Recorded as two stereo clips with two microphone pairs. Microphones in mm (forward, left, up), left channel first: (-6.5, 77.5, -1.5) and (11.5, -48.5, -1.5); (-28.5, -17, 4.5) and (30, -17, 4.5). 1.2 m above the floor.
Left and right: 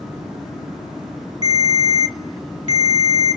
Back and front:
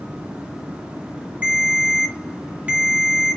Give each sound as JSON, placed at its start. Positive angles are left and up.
{"t": 1.4, "sound": "a ringtone", "azimuth_deg": 60, "distance_m": 1.0}